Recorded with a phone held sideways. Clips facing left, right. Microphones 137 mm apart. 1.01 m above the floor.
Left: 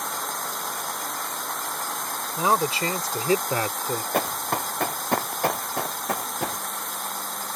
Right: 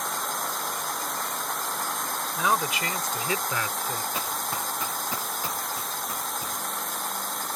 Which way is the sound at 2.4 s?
30° left (ahead or behind).